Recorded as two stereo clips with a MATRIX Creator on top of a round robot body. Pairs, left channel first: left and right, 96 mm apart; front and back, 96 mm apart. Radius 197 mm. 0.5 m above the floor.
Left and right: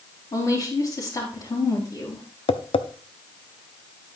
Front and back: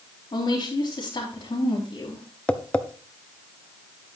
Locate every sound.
0.3 s a woman speaking: 45° left, 4 m
2.5 s tapping: 75° left, 0.8 m